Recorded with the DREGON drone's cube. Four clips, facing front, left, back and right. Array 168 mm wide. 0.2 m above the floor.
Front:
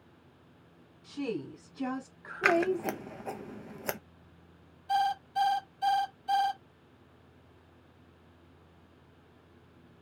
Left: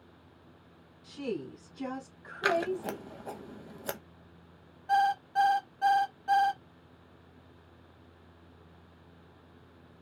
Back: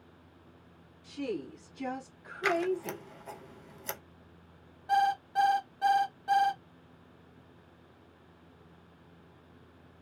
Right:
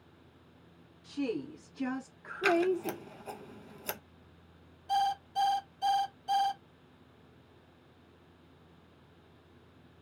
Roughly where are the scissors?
Ahead left.